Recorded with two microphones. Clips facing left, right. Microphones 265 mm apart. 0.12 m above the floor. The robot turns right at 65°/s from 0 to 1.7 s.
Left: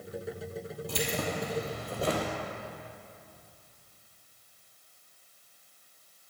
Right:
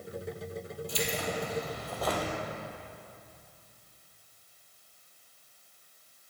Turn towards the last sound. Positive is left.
turn(degrees=150)